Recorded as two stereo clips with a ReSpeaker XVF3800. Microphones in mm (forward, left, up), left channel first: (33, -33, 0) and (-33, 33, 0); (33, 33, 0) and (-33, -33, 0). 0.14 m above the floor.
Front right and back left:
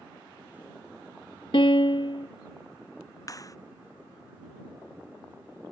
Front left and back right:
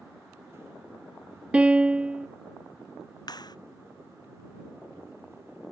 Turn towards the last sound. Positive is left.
turn(degrees=5)